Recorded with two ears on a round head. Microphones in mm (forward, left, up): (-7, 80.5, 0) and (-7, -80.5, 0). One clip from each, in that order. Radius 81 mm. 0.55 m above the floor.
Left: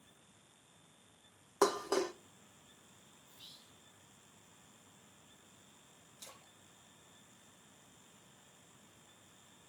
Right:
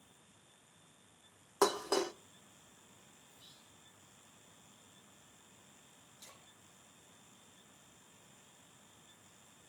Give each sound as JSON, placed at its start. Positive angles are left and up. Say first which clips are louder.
{"t": 1.6, "sound": "dishes clattering", "louder": "even", "side_deg": -10, "distance_m": 0.6}
{"t": 3.3, "sound": "whispering", "louder": "left 6 dB", "side_deg": 45, "distance_m": 1.6}
{"t": 6.2, "sound": "a splash", "louder": "left 3 dB", "side_deg": 30, "distance_m": 2.5}